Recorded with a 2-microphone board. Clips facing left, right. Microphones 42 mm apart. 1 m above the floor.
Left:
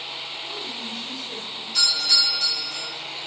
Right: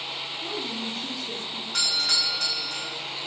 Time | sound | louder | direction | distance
0.4 | a woman speaking | right 2 dB | 65° right (ahead or behind) | 2.5 m
1.7 | a doorbell | left 3 dB | 65° right (ahead or behind) | 4 m